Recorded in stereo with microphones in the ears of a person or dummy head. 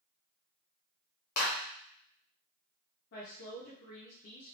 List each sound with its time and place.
1.4 s a clap: 45° left (ahead or behind), 1.2 m
3.1 s a woman speaking: 45° left (ahead or behind), 0.9 m